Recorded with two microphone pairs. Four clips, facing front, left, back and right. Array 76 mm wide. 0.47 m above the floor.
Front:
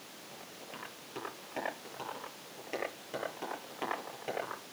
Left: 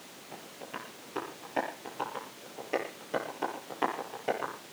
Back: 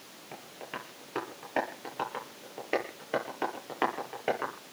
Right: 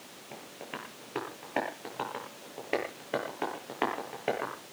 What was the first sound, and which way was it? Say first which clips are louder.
Tapping: even, back 8 dB; 155° right.